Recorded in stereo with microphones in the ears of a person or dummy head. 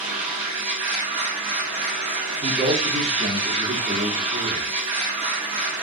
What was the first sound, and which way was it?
A machine running, 35° right (ahead or behind).